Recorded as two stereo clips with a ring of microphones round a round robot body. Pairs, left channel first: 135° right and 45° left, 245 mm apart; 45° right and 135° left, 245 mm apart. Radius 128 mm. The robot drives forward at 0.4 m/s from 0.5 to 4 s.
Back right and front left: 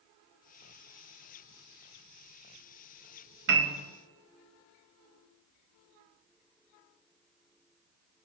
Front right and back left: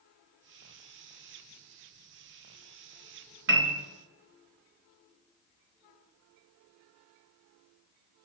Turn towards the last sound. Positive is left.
turn(degrees=115)